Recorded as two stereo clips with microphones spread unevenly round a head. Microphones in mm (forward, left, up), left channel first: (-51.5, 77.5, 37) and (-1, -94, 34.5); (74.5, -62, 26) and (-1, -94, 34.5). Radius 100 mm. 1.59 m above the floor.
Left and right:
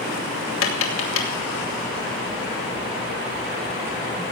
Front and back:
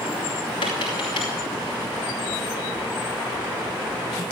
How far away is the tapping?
About 3 m.